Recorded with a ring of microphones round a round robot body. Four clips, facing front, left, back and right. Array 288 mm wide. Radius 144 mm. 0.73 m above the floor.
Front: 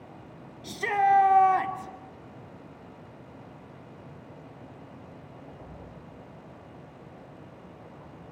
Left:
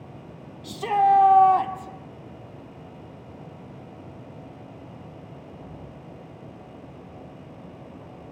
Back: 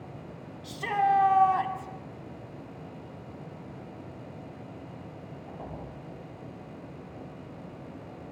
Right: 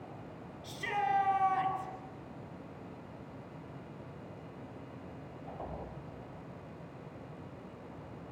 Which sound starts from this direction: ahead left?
A shout, at 0.6 s.